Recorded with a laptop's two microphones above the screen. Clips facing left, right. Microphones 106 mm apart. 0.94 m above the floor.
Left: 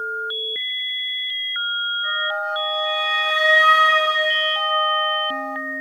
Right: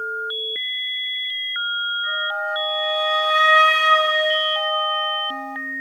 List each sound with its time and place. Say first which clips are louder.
2.0 s a flute: left 2 dB; 30° left (ahead or behind), 4.5 m